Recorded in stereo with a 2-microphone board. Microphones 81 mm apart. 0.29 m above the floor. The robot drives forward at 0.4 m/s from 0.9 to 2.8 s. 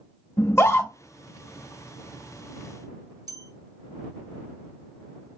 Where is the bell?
50° right (ahead or behind), 2.5 m.